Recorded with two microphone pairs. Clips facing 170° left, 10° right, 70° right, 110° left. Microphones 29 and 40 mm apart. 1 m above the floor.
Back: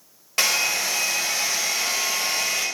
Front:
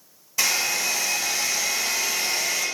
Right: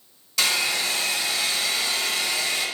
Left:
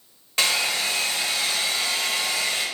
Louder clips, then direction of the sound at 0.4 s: Back 2 dB, even; 155° left.